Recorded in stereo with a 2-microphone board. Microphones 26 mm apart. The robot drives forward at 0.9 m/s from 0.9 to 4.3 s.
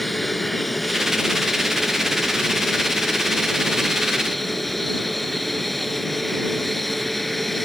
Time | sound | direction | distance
0.0 | an aircraft | centre (ahead or behind) | ?